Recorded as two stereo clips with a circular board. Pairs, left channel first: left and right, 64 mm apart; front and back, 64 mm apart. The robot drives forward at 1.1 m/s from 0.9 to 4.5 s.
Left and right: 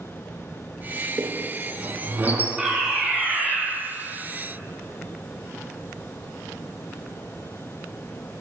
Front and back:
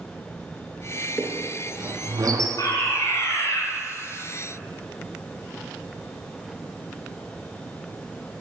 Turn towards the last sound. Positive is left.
turn(degrees=-15)